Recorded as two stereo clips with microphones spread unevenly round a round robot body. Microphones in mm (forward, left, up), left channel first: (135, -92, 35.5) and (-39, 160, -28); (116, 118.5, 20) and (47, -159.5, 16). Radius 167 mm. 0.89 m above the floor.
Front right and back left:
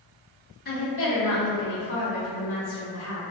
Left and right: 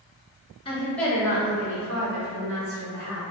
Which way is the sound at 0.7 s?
10° left.